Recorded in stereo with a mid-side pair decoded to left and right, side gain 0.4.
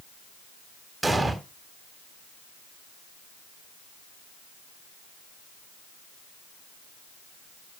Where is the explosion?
15° right, 3.5 m.